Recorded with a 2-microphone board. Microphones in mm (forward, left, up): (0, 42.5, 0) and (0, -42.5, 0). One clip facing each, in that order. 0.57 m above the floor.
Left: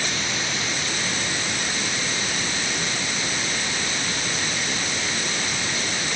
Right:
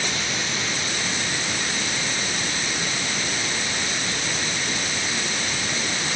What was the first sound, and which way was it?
Only background noise.